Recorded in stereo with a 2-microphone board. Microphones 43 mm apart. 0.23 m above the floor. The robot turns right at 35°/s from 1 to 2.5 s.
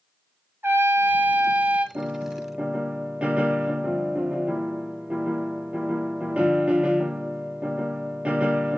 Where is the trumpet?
60° right (ahead or behind), 0.9 m; by 1.9 s 30° right (ahead or behind), 0.9 m.